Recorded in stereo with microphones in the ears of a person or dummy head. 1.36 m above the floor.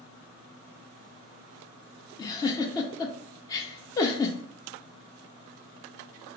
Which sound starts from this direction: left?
A giggle, at 2.2 s.